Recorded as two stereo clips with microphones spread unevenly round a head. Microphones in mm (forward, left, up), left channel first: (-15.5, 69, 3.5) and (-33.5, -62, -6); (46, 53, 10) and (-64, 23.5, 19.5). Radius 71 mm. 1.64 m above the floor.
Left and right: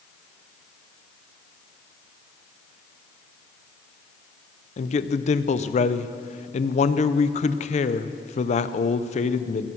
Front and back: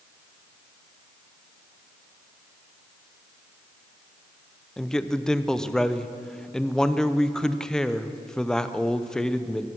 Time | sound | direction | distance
4.8 | a man speaking | 100° left | 0.7 m